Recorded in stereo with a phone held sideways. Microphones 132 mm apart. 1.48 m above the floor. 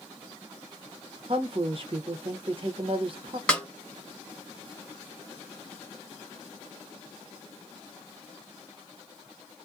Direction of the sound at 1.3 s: 40° right (ahead or behind).